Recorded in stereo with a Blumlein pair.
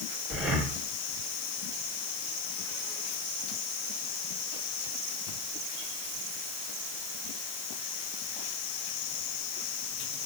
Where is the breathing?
Straight ahead, 2.5 m.